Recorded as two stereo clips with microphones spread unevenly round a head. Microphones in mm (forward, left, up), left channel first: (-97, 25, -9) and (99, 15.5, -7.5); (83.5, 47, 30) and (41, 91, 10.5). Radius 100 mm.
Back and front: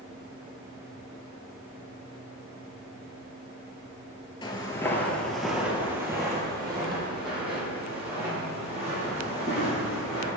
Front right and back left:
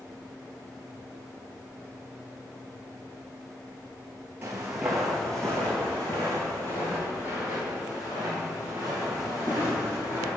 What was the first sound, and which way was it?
Footsteps, 150° right.